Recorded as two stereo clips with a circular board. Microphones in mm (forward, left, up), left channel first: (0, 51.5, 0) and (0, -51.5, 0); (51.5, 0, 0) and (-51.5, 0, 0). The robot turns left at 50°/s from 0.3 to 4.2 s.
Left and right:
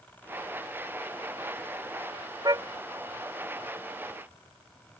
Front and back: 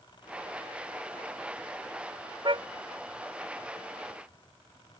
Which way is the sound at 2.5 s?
140° right.